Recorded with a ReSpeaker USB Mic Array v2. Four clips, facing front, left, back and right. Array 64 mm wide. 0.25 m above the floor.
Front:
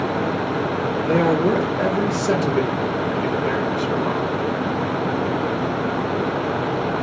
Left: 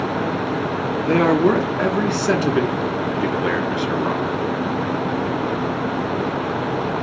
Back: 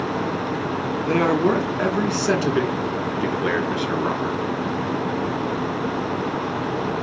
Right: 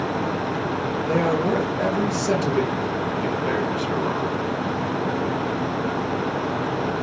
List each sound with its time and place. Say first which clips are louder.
1.1 s a man speaking: left 6 dB, front 1 dB; 115° left, 1.7 m; by 4.4 s 140° left, 3 m